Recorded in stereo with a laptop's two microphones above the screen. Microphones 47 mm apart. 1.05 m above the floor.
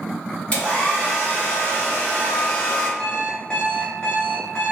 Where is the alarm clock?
25° left (ahead or behind), 0.6 m.